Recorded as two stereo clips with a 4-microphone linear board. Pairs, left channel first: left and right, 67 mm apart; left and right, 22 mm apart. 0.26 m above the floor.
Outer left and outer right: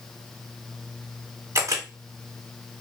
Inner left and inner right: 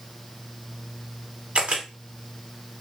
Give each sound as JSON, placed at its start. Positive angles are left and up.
{"t": 1.6, "sound": "a camera shutter", "side_deg": -45, "distance_m": 1.4}